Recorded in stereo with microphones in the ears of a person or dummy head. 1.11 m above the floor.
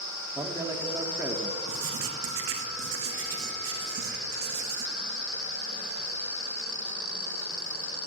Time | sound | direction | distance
0.3 | a man speaking | 10° right (ahead or behind) | 1.9 m
1.7 | writing | 70° right (ahead or behind) | 2.0 m